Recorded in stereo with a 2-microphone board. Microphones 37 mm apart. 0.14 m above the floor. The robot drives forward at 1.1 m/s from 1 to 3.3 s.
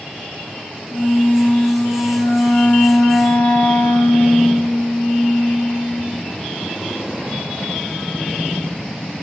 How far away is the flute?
About 5 m.